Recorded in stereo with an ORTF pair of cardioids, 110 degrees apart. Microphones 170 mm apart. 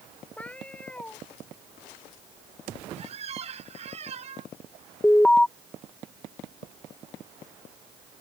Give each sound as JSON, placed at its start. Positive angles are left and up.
{"t": 0.4, "sound": "a cat meowing", "azimuth_deg": 10}
{"t": 3.0, "sound": "a squeak", "azimuth_deg": -40}
{"t": 5.0, "sound": "an alarm", "azimuth_deg": 10}